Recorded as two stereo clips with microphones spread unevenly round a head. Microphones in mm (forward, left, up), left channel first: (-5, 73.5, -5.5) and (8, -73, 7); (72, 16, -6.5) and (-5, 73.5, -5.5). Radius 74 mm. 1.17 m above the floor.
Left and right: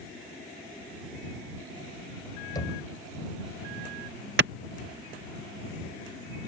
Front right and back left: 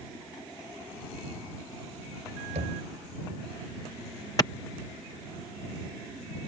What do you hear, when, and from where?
2.5 s knocking: 160° left
4.4 s a clap: 105° right